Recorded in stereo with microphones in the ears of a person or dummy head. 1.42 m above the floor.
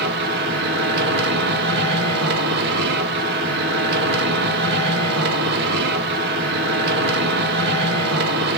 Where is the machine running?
55° right (ahead or behind), 0.8 m.